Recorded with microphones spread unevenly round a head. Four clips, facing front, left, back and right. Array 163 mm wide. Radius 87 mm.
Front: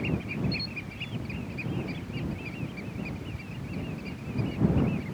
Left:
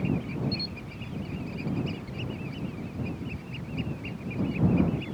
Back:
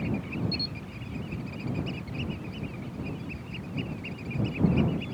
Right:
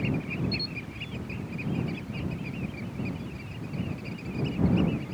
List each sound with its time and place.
0.5 s a camera shutter: 170° right